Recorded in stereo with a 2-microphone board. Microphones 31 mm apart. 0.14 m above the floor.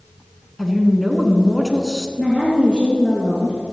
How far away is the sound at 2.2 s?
About 2.5 m.